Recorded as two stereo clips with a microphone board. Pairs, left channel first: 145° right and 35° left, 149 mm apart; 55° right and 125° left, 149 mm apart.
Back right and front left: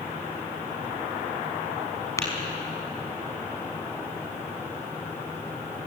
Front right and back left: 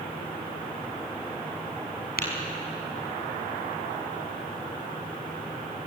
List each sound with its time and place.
2.2 s tapping: 75° right, 5.5 m